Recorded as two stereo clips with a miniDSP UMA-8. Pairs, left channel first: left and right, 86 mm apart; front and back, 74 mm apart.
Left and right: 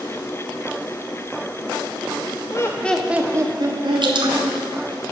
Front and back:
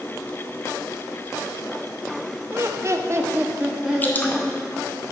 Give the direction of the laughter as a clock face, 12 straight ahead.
8 o'clock.